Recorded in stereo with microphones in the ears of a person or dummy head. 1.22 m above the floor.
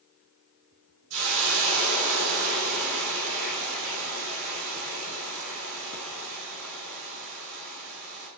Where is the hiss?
80° right, 4.5 m.